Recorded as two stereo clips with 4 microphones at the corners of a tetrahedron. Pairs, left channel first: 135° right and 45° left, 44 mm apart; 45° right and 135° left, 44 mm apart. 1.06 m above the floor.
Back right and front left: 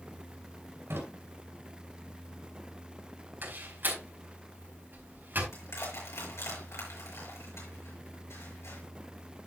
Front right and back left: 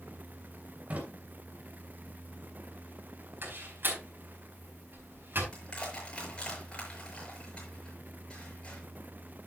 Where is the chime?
No chime in this recording.